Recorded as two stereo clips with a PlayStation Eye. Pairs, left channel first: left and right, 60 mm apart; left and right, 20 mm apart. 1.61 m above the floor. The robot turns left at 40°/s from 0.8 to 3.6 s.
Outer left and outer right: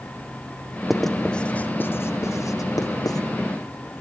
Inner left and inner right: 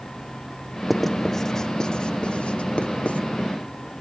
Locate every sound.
0.9 s writing: 5° right (ahead or behind), 1.2 m; by 3.2 s 90° left, 1.2 m